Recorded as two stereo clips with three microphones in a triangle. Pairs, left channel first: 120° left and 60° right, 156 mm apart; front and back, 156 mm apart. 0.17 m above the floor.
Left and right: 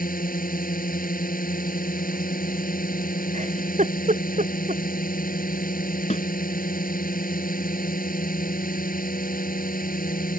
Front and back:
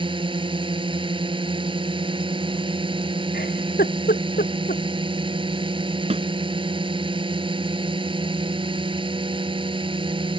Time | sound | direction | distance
0.0 | a drone | 125° left | ?
3.3 | a giggle | 20° right | ?
6.1 | a snare drum | 150° left | ?